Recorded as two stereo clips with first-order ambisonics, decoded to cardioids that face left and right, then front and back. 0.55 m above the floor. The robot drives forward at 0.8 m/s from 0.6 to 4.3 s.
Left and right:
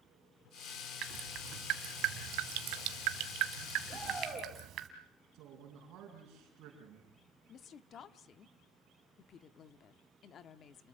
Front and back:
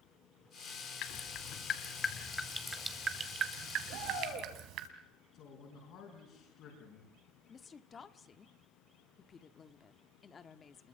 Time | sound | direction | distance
1.0 | dripping | 40° right | 1.7 m
3.9 | a shout | 165° right | 8.5 m
5.3 | a man speaking | 45° right | 4.5 m
7.5 | a woman speaking | 55° left | 0.9 m